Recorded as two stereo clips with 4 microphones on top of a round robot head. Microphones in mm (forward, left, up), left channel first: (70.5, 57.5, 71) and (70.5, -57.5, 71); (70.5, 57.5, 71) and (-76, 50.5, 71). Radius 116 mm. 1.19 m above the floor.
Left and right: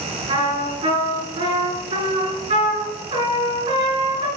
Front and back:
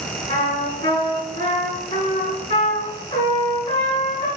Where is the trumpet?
55° right, 3 m.